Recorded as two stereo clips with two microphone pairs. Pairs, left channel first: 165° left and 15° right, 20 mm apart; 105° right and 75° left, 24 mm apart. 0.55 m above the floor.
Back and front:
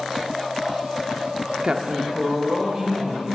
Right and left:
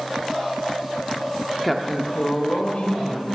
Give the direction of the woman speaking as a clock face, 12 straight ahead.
12 o'clock.